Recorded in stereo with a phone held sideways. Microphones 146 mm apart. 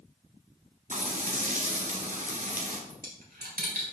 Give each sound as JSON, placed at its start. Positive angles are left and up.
{"t": 0.9, "sound": "frying", "side_deg": -60, "distance_m": 1.9}
{"t": 2.9, "sound": "a dropped coin", "side_deg": -85, "distance_m": 3.0}